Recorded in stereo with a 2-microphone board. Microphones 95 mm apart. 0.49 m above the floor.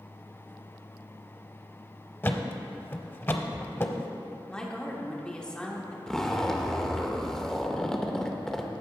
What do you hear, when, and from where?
2.2 s a thud: 25° left (ahead or behind), 0.6 m
4.5 s a woman speaking: 10° left (ahead or behind), 1.1 m
6.1 s a zipper: 5° left (ahead or behind), 0.6 m